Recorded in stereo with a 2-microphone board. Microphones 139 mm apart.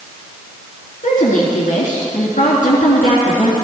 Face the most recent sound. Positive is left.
turn(degrees=70)  # may be behind; listen again after turning